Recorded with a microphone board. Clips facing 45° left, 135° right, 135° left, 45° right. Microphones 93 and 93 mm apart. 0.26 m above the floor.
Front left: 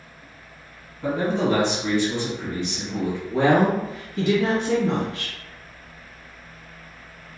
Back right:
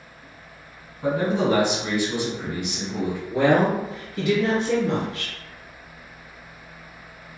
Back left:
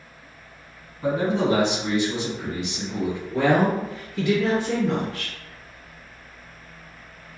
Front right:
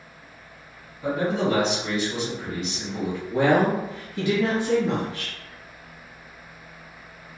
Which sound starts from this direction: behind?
A man speaking, at 1.0 s.